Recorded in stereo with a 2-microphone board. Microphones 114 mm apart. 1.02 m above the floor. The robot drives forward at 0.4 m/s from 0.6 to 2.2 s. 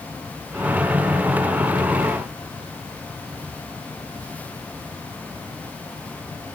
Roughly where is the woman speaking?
No woman speaking in this recording.